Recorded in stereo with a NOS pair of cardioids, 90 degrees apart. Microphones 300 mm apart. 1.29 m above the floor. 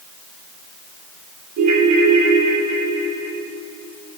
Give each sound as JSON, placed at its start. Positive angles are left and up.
{"t": 1.6, "sound": "a ringtone", "azimuth_deg": -65, "distance_m": 8.0}